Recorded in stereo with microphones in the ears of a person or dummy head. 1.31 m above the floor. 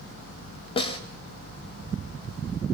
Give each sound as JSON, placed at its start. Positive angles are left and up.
{"t": 0.8, "sound": "a snare drum", "side_deg": 35, "distance_m": 3.0}